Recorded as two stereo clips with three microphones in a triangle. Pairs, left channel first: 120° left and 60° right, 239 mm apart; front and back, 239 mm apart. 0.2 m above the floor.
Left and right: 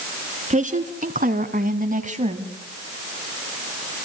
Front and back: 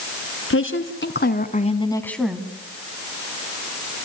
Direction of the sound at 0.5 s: 5° right.